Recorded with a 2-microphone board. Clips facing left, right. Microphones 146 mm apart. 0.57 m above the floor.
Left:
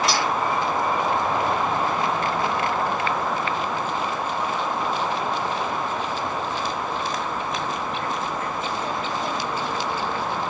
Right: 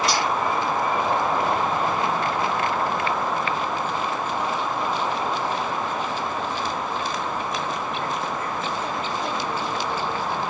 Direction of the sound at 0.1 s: Centre (ahead or behind).